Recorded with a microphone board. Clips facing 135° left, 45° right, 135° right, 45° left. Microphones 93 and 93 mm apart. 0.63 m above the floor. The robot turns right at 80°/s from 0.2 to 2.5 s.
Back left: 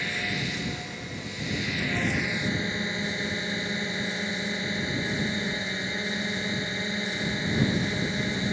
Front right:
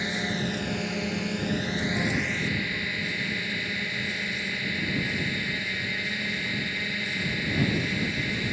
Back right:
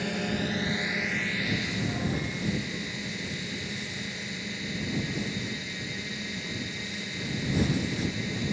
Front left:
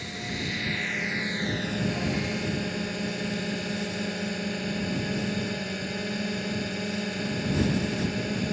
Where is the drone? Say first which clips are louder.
Front right 2 dB, back right 5 dB; 115° right; by 8.5 s 70° left.